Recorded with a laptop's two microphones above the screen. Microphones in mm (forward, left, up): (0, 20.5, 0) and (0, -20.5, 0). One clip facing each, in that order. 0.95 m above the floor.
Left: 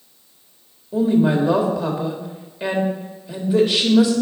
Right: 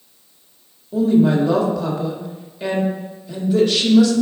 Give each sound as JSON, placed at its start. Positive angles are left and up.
{"t": 0.9, "sound": "a woman speaking", "side_deg": 15, "distance_m": 1.4}